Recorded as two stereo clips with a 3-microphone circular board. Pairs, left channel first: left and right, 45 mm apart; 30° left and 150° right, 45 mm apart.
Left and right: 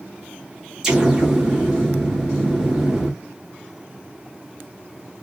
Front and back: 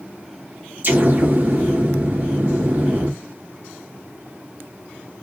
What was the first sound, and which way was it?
An explosion, 170° right.